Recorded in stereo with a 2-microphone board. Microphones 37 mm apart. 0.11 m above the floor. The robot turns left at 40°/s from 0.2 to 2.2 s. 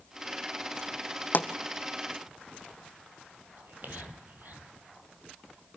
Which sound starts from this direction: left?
A pop, at 1.3 s.